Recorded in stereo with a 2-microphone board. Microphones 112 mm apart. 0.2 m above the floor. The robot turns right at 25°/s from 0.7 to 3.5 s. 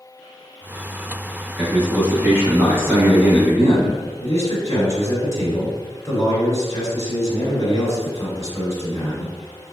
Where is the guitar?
No guitar in this recording.